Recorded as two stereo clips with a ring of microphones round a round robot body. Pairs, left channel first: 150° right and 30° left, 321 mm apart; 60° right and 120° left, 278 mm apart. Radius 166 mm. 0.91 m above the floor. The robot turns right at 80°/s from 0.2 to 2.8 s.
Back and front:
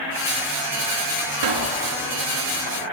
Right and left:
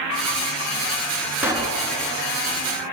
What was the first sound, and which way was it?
A pop, 35° left.